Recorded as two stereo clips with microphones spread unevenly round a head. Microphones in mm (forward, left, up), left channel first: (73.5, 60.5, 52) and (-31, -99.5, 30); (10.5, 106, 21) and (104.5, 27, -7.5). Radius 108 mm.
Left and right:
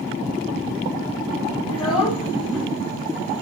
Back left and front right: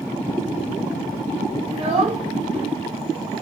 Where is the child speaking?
5° right, 4 m.